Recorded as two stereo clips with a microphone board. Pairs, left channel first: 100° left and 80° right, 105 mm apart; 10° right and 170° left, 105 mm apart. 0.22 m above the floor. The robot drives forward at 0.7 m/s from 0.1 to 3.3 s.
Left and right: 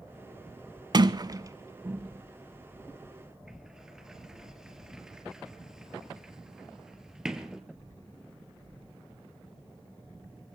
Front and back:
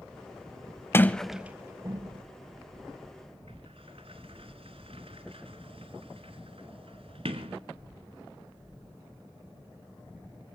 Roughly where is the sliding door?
Right.